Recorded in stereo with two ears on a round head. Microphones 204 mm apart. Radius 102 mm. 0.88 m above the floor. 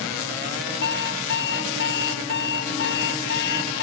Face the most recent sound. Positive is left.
turn(degrees=55)  # may be behind; listen again after turning